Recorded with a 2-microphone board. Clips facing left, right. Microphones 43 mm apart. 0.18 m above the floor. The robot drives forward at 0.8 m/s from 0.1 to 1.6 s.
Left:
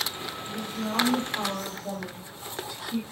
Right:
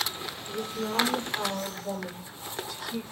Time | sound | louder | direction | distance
0.5 | a woman speaking | right 1 dB | 10° left (ahead or behind) | 7.5 m